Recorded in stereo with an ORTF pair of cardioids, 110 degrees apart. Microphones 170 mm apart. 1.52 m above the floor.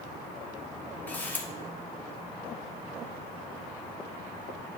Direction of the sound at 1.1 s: 10° left.